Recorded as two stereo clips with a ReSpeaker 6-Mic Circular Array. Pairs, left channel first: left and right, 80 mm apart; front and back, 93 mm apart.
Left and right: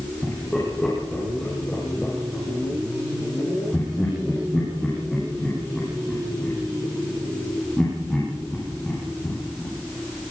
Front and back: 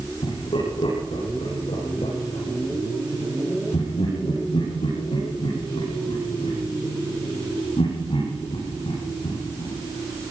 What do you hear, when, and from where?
0.2 s laughter: 15° left, 10 m